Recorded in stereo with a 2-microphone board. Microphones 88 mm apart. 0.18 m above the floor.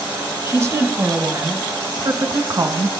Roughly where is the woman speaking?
Right.